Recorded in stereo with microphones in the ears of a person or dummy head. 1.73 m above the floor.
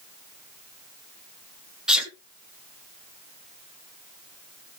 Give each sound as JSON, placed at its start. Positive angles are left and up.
{"t": 1.9, "sound": "a sneeze", "side_deg": -5, "distance_m": 1.9}